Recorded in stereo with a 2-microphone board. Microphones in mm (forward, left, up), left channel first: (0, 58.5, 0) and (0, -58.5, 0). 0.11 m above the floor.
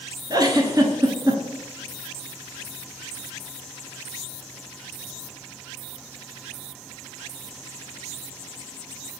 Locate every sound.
0.3 s a giggle: 35° right (ahead or behind), 0.6 m